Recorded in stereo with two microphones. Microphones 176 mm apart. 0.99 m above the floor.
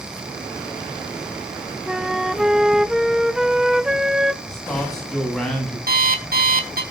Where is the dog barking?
No dog barking in this recording.